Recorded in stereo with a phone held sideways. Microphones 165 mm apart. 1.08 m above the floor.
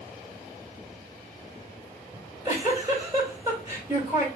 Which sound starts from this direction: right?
A giggle, at 2.1 s.